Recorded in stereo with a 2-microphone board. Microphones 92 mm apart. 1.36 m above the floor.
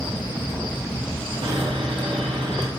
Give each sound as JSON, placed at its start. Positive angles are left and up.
{"t": 1.4, "sound": "sawing", "side_deg": -70, "distance_m": 2.0}